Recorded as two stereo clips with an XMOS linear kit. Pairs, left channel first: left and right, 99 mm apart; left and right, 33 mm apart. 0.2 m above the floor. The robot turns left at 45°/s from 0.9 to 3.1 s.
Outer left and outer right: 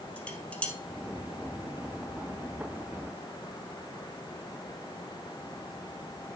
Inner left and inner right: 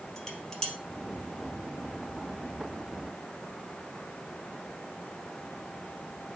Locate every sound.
0.2 s dishes clattering: 15° left (ahead or behind), 3 m